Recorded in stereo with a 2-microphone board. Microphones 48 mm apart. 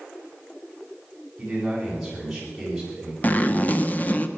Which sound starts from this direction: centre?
A man speaking, at 1.4 s.